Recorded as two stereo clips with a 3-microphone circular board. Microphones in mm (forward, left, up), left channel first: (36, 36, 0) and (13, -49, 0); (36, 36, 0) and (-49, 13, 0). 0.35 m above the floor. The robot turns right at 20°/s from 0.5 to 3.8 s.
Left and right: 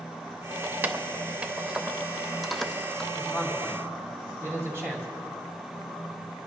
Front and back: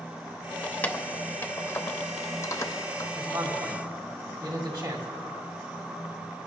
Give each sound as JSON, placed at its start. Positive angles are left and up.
{"t": 0.6, "sound": "keys jangling", "azimuth_deg": -50, "distance_m": 0.6}
{"t": 3.1, "sound": "a man speaking", "azimuth_deg": -170, "distance_m": 2.5}